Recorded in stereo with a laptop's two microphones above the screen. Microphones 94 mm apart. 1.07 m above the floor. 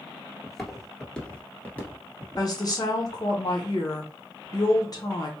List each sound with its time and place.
0.4 s footsteps: centre (ahead or behind), 1.2 m; by 2.5 s 25° left (ahead or behind), 1.2 m
2.4 s a woman speaking: 40° left (ahead or behind), 0.9 m